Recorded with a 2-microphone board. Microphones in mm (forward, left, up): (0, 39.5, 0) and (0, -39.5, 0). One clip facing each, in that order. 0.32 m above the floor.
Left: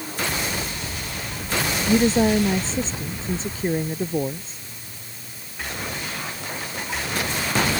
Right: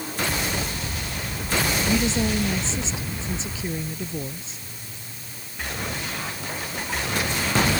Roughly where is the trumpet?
No trumpet in this recording.